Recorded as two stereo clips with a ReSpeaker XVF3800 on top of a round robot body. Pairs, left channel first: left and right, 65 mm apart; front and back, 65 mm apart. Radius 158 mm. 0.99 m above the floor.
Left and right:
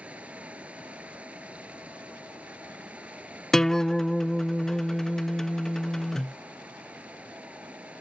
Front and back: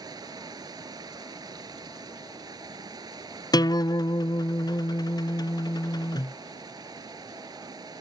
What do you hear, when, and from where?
0.0 s running water: 165° right
3.5 s a guitar: 5° left